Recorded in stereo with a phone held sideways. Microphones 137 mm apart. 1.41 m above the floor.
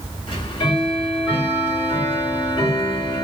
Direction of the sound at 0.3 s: 40° left (ahead or behind).